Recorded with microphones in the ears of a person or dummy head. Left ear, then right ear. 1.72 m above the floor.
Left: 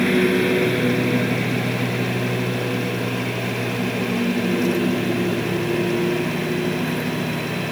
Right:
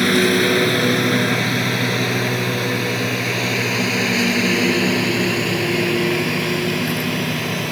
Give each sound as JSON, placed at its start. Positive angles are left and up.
{"t": 0.0, "sound": "a lawn mower", "side_deg": -35}